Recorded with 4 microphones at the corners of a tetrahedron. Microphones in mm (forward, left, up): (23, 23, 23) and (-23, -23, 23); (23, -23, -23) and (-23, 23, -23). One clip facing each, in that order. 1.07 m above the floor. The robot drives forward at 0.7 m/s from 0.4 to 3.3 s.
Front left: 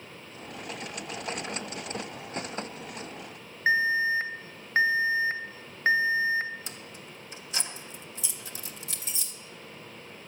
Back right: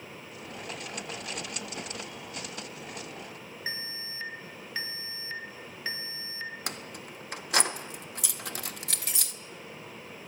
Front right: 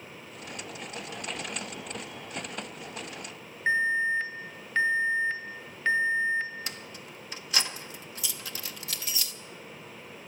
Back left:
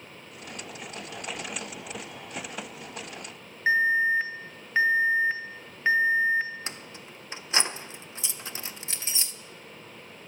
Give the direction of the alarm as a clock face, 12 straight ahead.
10 o'clock.